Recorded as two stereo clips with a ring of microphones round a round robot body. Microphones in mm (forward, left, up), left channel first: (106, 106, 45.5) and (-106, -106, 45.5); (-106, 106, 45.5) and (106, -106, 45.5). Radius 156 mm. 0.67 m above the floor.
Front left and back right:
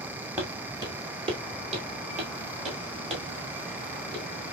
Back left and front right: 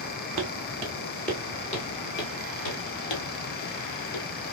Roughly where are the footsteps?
Ahead right.